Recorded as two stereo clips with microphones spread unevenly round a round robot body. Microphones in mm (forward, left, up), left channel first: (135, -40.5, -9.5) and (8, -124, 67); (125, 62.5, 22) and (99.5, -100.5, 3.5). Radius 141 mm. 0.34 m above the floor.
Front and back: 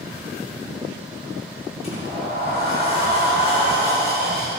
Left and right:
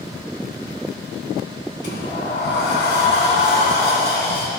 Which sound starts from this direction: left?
A sliding door, at 1.8 s.